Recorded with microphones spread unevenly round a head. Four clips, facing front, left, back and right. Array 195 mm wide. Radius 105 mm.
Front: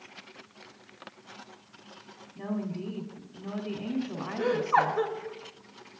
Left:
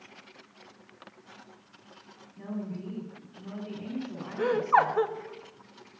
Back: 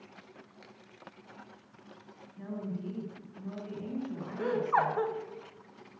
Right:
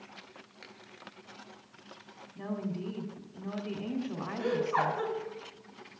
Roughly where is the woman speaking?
Ahead right.